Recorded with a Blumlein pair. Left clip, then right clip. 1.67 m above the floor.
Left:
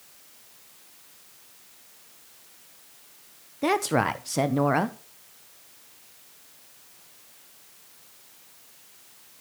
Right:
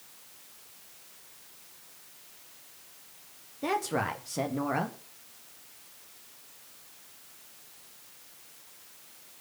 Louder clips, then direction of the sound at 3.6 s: Left 6 dB; 65° left.